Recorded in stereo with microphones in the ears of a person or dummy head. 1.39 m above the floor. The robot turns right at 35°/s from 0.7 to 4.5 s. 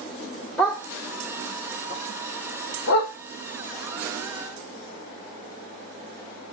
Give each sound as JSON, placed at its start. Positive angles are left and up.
{"t": 0.6, "sound": "a dog barking", "side_deg": 0, "distance_m": 1.7}